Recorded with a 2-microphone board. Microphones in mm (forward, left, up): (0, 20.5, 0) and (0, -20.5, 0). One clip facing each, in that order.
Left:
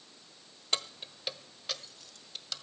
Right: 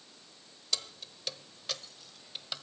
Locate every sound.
0.7 s keys jangling: 35° left (ahead or behind), 1.0 m; by 2.6 s 20° right (ahead or behind), 1.5 m